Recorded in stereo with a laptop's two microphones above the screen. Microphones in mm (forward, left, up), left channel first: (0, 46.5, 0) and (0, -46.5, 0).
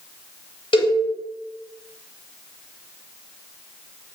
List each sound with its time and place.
0.7 s a cowbell: 70° left (ahead or behind), 0.7 m